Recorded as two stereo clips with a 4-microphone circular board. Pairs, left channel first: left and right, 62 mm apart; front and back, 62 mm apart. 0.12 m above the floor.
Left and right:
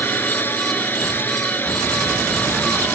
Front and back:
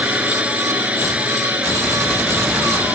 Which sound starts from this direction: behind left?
A drone, at 0.0 s.